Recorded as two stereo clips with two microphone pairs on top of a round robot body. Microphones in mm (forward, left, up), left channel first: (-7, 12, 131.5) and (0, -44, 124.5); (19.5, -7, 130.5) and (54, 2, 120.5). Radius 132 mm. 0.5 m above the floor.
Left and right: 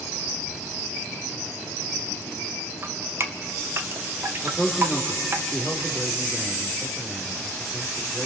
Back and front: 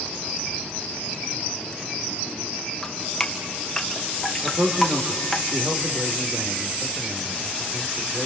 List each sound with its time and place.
2.8 s dripping: 75° right, 1.7 m
4.4 s a man speaking: 5° left, 2.5 m